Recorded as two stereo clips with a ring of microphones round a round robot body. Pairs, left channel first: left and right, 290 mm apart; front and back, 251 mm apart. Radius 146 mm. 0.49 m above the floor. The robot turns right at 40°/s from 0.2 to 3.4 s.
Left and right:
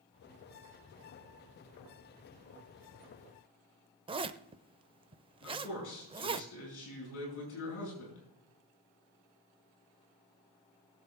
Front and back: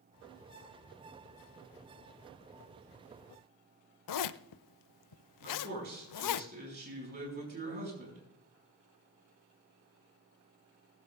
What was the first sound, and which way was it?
A zipper, 15° right.